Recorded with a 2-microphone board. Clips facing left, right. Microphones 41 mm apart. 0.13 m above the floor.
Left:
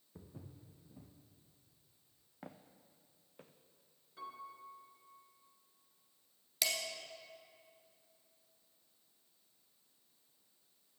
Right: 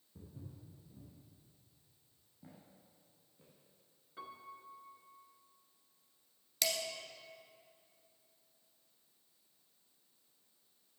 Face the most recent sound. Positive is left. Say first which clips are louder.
# even
turn(degrees=5)  # may be behind; listen again after turning